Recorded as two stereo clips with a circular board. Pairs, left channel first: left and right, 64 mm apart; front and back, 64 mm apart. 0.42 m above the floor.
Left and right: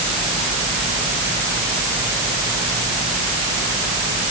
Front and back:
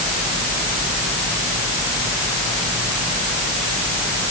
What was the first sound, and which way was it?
Only background noise.